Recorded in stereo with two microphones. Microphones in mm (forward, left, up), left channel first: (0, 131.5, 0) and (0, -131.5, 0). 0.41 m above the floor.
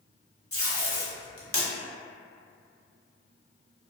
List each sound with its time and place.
0.5 s tape being pulled: 60° left (ahead or behind), 0.7 m